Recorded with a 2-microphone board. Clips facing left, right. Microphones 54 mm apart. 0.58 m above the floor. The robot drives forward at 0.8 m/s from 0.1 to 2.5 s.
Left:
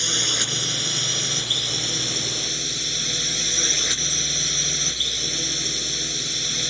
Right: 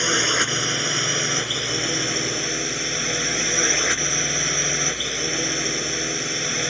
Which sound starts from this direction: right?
A drone, at 0.0 s.